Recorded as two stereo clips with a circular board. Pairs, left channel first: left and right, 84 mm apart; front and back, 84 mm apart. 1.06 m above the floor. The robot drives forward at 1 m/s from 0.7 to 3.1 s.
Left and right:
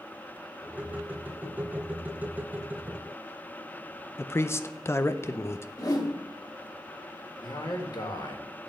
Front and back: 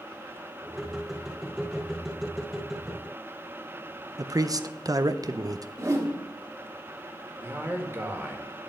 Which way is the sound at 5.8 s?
130° left.